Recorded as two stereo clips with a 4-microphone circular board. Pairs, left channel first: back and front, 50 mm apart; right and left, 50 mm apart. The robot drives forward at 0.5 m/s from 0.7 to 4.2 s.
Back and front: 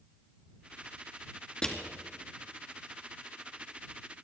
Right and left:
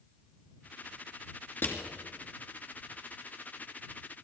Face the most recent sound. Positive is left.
turn(degrees=-140)